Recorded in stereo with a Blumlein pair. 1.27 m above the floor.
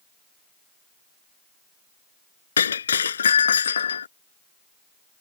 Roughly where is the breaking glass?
Left.